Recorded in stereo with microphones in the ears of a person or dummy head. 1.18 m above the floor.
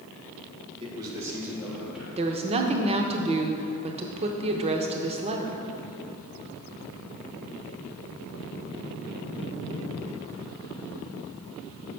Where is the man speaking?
25° right (ahead or behind), 1.2 m; by 2.1 s 5° right (ahead or behind), 2.5 m.